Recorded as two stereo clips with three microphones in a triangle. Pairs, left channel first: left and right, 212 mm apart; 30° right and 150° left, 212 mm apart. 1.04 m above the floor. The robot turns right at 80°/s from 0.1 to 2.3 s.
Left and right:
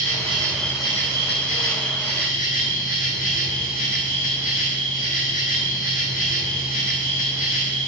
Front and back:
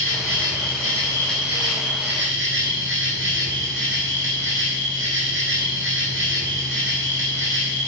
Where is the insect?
40° right, 1.0 m; by 7.9 s 135° left, 1.0 m.